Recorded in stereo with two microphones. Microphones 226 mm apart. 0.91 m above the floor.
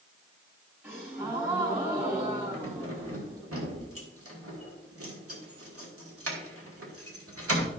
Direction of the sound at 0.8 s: 10° right (ahead or behind).